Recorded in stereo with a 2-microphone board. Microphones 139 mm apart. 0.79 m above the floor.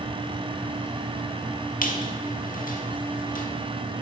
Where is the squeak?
80° left, 1.2 m.